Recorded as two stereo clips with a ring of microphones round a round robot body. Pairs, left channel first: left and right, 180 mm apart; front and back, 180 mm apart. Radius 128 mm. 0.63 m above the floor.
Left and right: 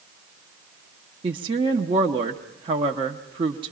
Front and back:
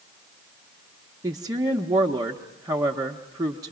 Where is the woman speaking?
125° right, 0.7 m.